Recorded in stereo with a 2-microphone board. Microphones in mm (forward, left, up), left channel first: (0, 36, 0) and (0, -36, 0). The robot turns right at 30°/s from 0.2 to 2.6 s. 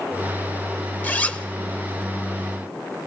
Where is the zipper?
25° left (ahead or behind), 0.9 m; by 1.5 s 20° left (ahead or behind), 0.9 m.